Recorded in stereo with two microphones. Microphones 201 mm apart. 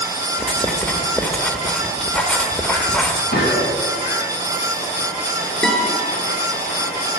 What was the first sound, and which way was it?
Writing, 5° left (ahead or behind).